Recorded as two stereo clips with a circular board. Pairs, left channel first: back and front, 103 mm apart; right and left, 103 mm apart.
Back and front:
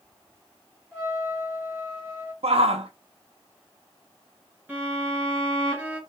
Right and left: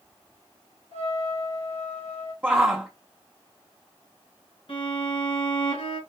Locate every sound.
0.9 s a trumpet: 100° right, 3 m
2.4 s a shout: 10° left, 0.7 m
4.7 s a violin: 75° right, 2.5 m